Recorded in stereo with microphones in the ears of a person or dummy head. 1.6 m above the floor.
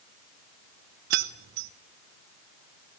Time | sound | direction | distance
1.1 | keys jangling | 40° right (ahead or behind) | 0.7 m